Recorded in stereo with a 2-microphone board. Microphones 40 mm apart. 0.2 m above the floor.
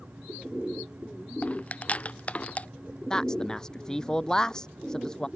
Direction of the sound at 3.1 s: 20° left (ahead or behind).